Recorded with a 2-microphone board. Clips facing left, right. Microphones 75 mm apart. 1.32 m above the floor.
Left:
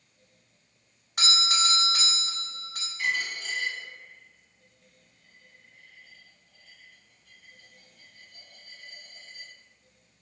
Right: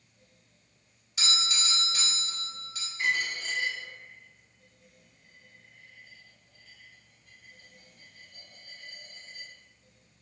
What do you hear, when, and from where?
1.2 s a doorbell: 55° left (ahead or behind), 0.7 m
3.0 s a dropped coin: 40° right (ahead or behind), 1.9 m